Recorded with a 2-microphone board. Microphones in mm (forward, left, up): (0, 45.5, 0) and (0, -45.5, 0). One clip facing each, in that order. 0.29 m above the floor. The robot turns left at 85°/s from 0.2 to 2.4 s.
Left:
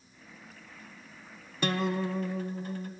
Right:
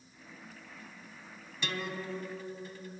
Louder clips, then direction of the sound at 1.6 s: Left 8 dB; 130° left.